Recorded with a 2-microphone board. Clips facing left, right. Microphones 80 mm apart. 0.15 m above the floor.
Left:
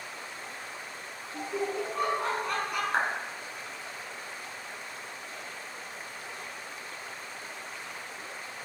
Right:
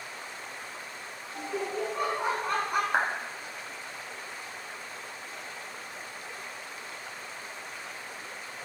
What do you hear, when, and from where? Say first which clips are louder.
1.3 s laughter: left 1 dB; 25° left (ahead or behind), 1.5 m; by 2.8 s 40° right (ahead or behind), 1.2 m
2.9 s a clap: even; 15° right (ahead or behind), 1.2 m